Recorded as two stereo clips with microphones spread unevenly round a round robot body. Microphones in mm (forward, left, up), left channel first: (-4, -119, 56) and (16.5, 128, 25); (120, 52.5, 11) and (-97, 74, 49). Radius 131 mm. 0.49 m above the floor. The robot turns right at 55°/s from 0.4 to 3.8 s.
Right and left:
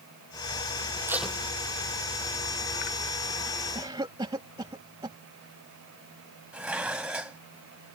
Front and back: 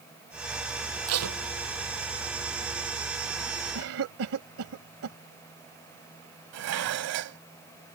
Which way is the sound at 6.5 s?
170° left.